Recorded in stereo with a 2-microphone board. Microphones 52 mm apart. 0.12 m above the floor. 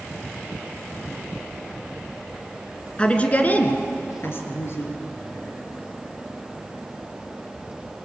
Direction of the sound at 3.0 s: 20° left (ahead or behind).